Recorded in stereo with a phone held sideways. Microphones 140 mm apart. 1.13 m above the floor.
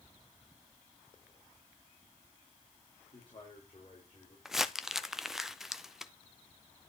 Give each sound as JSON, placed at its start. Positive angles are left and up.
{"t": 3.1, "sound": "a man speaking", "side_deg": 45, "distance_m": 4.5}
{"t": 4.5, "sound": "crumpling", "side_deg": -5, "distance_m": 0.5}